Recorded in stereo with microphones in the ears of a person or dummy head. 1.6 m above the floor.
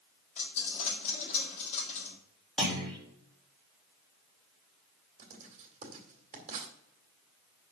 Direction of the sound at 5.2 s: 35° right (ahead or behind).